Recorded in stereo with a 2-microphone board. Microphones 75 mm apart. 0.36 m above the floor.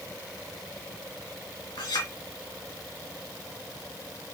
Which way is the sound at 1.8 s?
80° left.